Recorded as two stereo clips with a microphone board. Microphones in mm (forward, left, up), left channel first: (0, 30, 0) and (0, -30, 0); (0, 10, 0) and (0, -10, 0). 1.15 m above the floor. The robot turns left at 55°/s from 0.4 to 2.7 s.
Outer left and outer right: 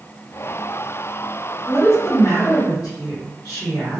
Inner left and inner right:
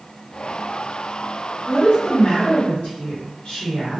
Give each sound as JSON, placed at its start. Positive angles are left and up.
{"t": 1.7, "sound": "a woman speaking", "azimuth_deg": 135, "distance_m": 1.5}